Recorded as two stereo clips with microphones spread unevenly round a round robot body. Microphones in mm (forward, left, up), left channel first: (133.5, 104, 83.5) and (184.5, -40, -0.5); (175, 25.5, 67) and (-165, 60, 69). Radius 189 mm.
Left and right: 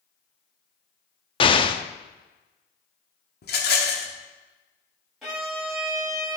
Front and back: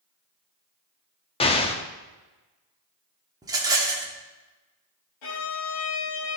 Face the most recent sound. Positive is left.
turn(degrees=25)